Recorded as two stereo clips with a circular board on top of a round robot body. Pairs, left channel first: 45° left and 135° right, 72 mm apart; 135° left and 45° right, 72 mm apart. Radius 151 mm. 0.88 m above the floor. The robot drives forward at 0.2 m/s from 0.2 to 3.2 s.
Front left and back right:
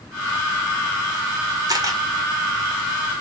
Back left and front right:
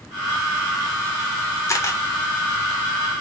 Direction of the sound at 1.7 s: 175° right.